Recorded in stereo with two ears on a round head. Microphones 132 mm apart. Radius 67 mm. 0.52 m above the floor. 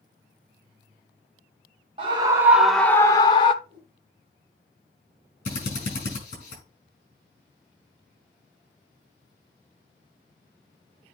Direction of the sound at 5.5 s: 50° left (ahead or behind).